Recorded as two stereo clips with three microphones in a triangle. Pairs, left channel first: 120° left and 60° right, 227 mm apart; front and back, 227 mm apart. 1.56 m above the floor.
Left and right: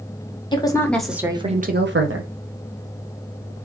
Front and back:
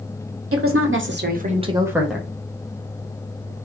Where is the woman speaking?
170° right, 0.9 m; by 2.3 s 85° right, 0.8 m.